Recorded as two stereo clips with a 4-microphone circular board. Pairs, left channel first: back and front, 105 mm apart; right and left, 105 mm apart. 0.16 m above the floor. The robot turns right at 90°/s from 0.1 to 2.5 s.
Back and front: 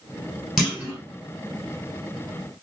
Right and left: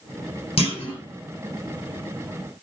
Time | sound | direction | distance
0.6 | a clunk | 90° right | 1.9 m